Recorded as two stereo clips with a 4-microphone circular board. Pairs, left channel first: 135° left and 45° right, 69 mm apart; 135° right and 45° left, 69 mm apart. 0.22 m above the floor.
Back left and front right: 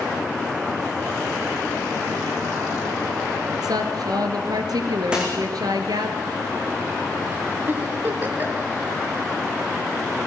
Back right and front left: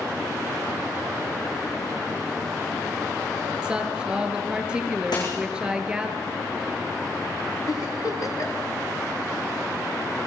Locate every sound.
3.6 s a woman speaking: 30° right, 3 m
5.1 s a dropped coin: 120° right, 8.5 m
7.7 s a giggle: 105° right, 3 m